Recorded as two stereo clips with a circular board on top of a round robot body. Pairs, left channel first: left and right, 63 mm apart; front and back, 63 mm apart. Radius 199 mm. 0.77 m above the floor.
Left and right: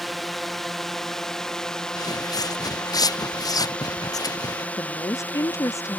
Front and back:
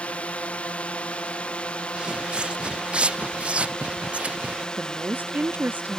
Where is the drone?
5° left; by 6.0 s 70° left.